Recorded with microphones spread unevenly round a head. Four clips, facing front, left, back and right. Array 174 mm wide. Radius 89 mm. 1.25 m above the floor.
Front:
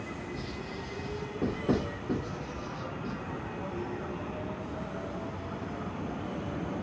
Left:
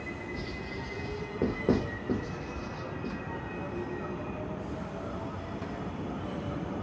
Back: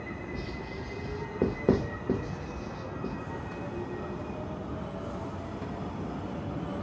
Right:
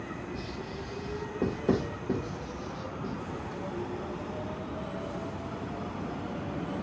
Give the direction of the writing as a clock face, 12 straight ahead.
6 o'clock.